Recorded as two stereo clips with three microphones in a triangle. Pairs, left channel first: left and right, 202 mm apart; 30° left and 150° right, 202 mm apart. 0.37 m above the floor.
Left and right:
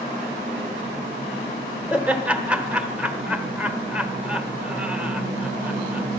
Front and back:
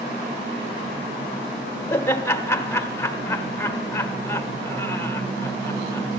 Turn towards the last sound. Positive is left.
turn(degrees=-20)